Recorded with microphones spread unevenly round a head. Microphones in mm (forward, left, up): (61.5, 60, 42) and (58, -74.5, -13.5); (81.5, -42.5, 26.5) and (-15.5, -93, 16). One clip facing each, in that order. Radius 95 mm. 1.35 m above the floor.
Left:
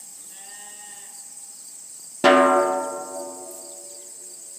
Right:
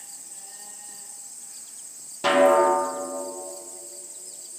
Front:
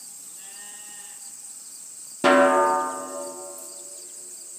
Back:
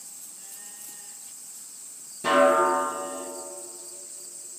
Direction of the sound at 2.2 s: 55° left.